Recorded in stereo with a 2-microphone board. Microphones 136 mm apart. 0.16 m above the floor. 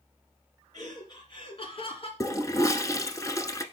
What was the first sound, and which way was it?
Laughter, 30° left (ahead or behind).